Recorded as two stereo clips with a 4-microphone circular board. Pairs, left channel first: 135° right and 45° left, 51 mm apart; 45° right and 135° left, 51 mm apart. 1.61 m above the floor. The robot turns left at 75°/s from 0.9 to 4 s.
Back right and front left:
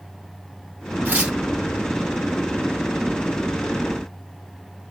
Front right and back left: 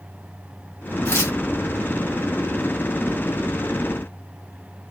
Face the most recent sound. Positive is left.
turn(degrees=130)